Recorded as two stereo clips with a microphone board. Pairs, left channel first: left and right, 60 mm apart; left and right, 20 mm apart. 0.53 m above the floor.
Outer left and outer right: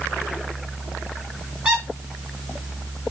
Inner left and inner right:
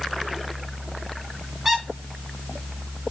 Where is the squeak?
20° right (ahead or behind), 5 m.